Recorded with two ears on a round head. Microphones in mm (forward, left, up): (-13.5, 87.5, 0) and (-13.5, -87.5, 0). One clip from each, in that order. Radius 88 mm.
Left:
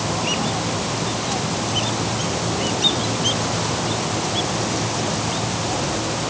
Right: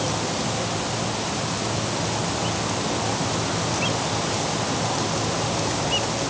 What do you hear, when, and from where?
Only background noise.